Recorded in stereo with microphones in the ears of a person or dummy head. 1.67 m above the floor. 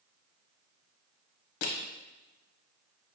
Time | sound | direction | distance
1.6 | crushing | 65° left (ahead or behind) | 0.8 m